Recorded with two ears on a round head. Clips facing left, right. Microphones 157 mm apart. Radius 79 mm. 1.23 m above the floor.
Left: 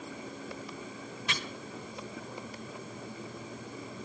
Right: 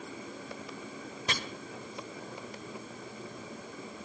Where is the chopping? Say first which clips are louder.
Right 3 dB; 35° right (ahead or behind), 1.2 m.